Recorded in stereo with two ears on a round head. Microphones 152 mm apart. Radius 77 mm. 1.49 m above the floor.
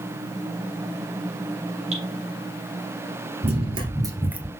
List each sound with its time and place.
1.9 s dripping: 40° right (ahead or behind), 4 m
3.4 s running footsteps: 40° right (ahead or behind), 2 m; by 4.5 s centre (ahead or behind), 1.5 m